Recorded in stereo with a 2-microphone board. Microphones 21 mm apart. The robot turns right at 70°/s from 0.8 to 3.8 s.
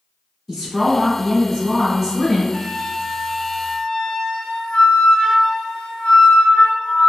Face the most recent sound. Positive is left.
turn(degrees=110)